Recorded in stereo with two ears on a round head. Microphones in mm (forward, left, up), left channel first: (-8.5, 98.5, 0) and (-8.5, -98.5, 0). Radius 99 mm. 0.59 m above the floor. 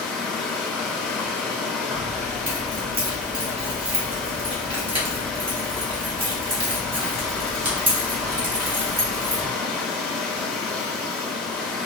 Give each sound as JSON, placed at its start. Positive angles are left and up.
{"t": 0.0, "sound": "running water", "side_deg": 0, "distance_m": 1.1}
{"t": 1.9, "sound": "keys jangling", "side_deg": -25, "distance_m": 1.3}